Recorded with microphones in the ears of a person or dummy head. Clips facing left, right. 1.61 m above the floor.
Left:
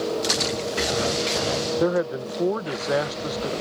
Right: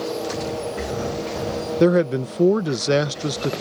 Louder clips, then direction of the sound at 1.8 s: Right 8 dB; 40° right (ahead or behind).